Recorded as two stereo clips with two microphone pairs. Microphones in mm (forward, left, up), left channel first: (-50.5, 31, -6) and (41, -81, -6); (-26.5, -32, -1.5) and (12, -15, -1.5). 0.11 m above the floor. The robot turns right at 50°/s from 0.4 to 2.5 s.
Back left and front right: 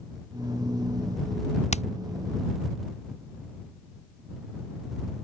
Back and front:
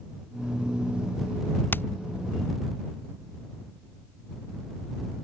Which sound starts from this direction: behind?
Hammering, at 1.7 s.